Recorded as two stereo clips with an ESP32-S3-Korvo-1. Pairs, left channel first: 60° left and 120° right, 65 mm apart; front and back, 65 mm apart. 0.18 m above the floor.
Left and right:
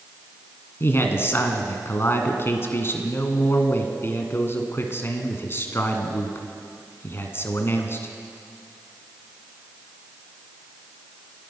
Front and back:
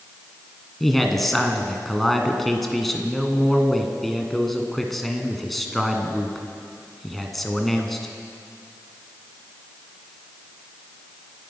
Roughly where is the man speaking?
Left.